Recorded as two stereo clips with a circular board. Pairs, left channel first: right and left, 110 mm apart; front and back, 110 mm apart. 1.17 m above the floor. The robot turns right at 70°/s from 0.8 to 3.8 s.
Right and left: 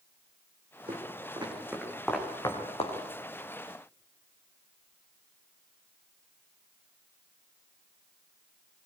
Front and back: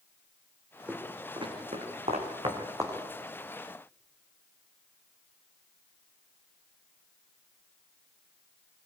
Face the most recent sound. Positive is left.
turn(degrees=-50)